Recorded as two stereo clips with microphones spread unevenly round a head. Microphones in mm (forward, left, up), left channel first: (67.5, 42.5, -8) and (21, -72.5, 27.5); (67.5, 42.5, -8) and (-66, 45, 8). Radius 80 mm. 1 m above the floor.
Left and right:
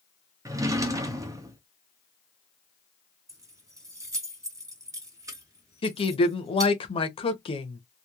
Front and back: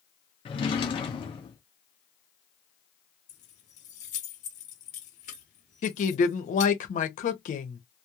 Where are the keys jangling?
50° right, 1.0 m.